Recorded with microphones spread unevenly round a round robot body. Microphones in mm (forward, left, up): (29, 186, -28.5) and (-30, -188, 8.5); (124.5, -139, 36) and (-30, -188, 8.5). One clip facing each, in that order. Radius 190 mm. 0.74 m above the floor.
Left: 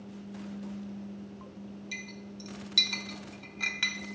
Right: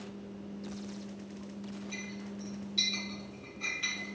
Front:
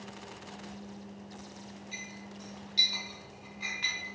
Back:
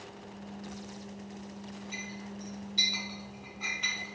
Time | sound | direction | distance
1.9 | a clink | 80° left | 1.3 m